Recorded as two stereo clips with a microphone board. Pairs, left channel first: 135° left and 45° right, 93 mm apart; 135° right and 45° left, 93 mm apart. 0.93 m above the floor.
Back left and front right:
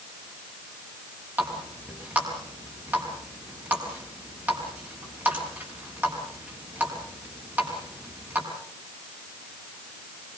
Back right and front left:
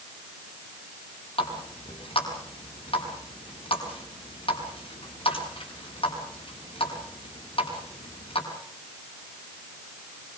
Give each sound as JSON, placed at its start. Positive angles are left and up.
{"t": 1.4, "sound": "a running tap", "azimuth_deg": -115, "distance_m": 6.0}